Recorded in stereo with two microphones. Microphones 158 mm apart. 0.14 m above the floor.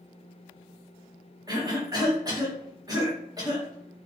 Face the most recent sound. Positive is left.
turn(degrees=-25)  # may be behind; listen again after turning